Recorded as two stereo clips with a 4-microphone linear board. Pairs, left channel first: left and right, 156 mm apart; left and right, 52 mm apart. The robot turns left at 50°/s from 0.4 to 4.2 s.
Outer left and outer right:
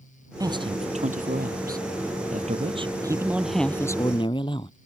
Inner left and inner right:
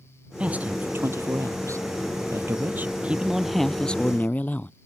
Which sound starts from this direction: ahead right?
A man speaking, at 0.4 s.